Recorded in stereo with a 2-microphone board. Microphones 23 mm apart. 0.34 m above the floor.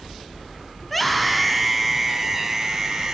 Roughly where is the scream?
Centre.